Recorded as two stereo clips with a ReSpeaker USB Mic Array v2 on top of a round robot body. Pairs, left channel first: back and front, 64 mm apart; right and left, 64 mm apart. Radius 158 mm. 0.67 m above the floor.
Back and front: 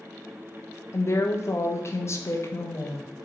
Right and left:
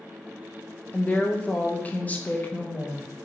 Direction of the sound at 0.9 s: 150° right.